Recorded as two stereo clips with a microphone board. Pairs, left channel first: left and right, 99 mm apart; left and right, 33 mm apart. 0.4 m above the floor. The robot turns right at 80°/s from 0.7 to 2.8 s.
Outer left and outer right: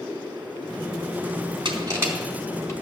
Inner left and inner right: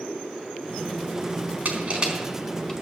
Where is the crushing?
50° right (ahead or behind), 4 m; by 2.7 s 30° left (ahead or behind), 4 m.